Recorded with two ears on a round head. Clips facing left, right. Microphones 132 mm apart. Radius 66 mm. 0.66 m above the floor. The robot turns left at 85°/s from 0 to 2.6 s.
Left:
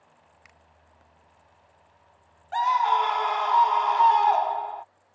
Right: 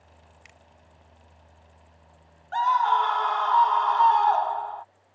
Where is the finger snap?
35° right (ahead or behind); by 0.6 s 20° right (ahead or behind).